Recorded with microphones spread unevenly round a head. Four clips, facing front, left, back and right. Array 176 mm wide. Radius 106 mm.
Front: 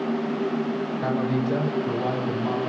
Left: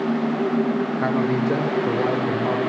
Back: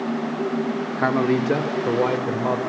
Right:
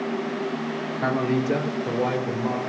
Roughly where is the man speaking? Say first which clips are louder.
Right 2 dB, back 7 dB; behind.